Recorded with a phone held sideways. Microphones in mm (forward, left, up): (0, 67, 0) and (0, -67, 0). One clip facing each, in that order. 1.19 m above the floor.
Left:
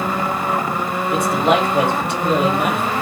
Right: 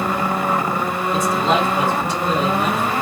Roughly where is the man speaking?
Left.